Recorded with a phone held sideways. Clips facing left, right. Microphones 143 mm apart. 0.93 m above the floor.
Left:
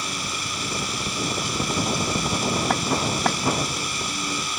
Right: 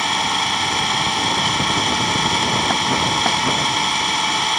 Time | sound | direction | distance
0.0 | an engine running | 75° right (ahead or behind) | ?